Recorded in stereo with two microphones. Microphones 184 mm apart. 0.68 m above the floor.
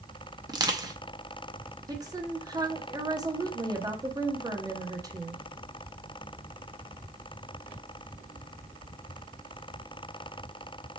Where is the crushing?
20° right (ahead or behind), 0.7 m.